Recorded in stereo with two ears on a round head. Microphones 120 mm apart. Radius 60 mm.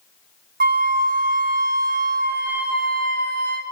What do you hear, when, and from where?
0.6 s a flute: 70° right (ahead or behind), 1.0 m